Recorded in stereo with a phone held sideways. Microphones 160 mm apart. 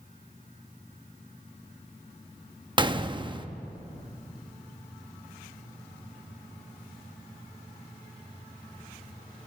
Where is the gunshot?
30° right (ahead or behind), 0.7 m.